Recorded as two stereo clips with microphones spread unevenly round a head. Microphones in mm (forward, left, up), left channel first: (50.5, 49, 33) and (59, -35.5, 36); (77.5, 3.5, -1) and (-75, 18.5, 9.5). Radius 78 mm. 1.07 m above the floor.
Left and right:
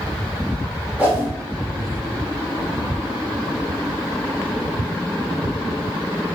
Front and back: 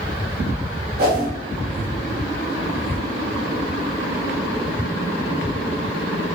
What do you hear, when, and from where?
1.0 s a whoosh: 165° right, 0.8 m